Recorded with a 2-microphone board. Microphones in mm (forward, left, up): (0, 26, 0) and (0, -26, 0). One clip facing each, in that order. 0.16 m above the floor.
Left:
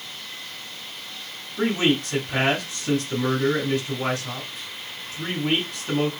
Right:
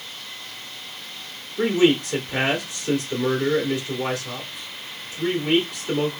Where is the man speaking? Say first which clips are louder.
Right 3 dB; 40° left (ahead or behind), 2 m.